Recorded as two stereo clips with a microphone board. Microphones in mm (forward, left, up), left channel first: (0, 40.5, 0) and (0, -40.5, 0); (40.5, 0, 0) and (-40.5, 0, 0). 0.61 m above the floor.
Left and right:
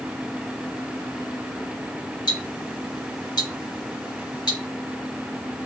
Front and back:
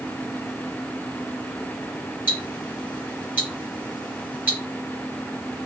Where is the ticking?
115° left, 0.9 m.